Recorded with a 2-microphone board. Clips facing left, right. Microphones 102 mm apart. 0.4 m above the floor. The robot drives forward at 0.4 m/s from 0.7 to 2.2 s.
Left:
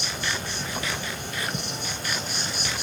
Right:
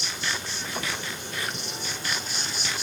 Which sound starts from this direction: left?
An insect, at 0.0 s.